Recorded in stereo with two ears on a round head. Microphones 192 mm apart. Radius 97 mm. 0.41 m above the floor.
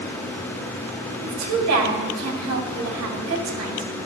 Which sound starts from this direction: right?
A woman speaking, at 1.2 s.